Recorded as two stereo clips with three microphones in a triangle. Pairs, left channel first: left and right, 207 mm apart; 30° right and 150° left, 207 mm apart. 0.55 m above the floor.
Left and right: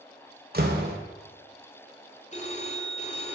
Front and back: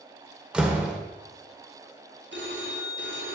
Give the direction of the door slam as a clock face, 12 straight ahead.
4 o'clock.